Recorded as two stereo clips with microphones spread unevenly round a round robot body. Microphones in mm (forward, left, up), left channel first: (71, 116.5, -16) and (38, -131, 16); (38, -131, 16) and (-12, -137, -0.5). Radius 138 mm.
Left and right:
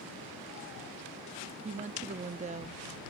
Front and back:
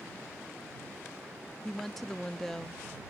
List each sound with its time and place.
1.6 s a woman speaking: 120° right